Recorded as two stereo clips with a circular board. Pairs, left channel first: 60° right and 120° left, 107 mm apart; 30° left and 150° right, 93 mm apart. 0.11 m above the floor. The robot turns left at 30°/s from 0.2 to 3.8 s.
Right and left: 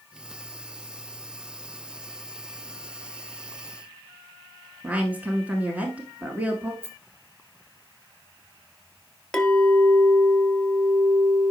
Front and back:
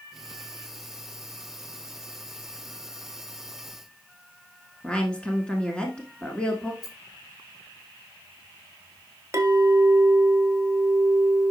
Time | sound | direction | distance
4.8 | a woman speaking | 80° left | 1.1 m
6.8 | a rattle | 60° left | 1.9 m
9.3 | a clink | 140° right | 1.1 m